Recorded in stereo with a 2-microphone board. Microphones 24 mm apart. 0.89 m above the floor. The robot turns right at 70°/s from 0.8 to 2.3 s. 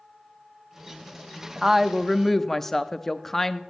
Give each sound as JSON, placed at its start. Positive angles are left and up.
{"t": 1.6, "sound": "a woman speaking", "azimuth_deg": -35, "distance_m": 0.6}